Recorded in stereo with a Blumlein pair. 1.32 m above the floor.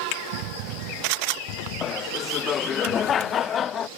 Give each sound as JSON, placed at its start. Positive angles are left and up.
{"t": 1.8, "sound": "laughter", "azimuth_deg": 25}